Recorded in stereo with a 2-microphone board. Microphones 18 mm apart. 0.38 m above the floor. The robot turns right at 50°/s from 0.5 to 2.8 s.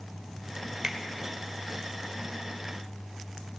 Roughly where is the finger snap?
Right.